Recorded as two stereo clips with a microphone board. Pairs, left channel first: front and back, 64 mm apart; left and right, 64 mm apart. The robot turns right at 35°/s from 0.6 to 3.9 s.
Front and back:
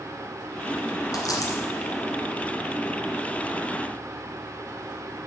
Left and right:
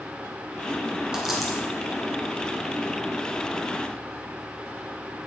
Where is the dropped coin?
10° right, 2.0 m; by 1.6 s 5° left, 2.0 m.